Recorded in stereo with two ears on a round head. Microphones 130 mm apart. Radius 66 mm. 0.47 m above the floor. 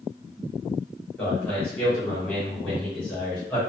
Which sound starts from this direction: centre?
A man speaking, at 1.2 s.